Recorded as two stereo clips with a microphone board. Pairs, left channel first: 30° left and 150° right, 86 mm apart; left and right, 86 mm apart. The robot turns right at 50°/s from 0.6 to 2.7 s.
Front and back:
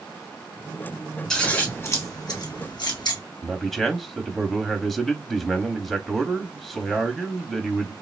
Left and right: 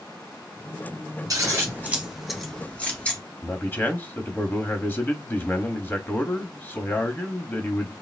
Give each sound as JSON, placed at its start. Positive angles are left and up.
{"t": 1.3, "sound": "scissors", "azimuth_deg": -55, "distance_m": 2.5}
{"t": 3.4, "sound": "a man speaking", "azimuth_deg": 115, "distance_m": 1.0}